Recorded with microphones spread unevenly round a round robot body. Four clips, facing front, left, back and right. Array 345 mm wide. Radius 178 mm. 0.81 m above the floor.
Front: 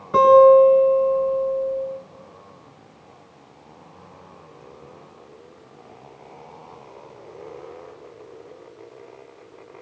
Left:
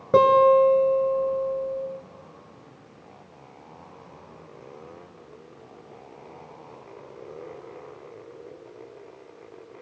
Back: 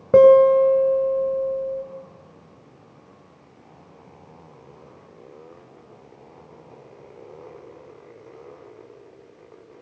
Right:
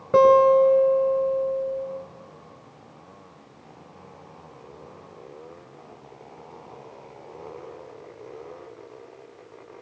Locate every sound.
0.1 s a guitar: 165° left, 3 m